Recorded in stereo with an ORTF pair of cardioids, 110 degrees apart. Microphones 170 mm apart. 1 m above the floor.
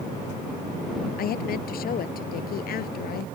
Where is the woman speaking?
60° left.